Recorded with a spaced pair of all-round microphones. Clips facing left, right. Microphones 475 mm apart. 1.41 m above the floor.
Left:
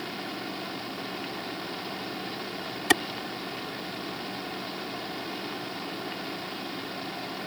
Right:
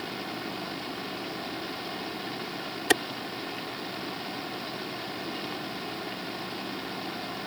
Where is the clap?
20° left (ahead or behind).